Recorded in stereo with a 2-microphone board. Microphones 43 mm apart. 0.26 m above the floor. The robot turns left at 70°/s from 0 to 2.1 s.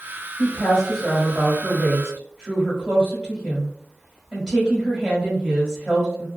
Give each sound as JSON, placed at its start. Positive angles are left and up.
{"t": 0.4, "sound": "a woman speaking", "side_deg": 10, "distance_m": 1.4}